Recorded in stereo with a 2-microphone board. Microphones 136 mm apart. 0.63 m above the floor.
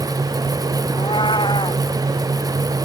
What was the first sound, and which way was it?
A cat meowing, 40° left (ahead or behind).